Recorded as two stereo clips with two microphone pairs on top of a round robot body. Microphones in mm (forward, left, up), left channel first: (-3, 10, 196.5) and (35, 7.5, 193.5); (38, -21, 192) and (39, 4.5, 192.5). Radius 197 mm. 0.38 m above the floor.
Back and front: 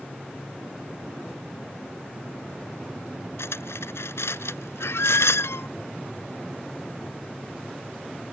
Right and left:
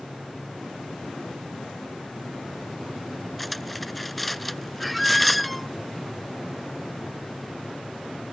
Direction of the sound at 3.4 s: Straight behind.